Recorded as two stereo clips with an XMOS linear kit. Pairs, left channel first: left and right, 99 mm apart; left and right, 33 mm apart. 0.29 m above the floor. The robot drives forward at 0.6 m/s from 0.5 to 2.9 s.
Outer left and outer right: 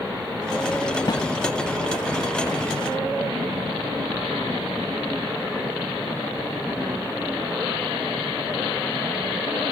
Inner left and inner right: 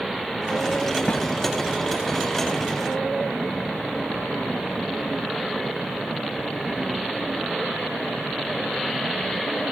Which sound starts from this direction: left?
A snare drum, at 1.1 s.